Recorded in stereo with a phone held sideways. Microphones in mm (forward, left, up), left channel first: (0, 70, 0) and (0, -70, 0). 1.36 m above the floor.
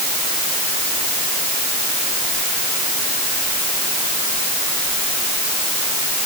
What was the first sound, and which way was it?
Only background noise.